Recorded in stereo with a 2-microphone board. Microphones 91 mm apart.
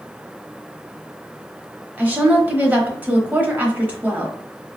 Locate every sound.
2.0 s a woman speaking: 20° right (ahead or behind), 0.9 m